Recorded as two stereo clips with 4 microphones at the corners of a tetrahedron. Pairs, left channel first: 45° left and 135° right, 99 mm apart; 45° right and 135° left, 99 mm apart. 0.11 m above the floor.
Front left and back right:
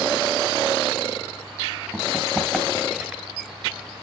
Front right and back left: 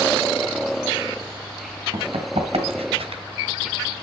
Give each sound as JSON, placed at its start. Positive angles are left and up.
{"t": 1.9, "sound": "running footsteps", "azimuth_deg": 130, "distance_m": 2.5}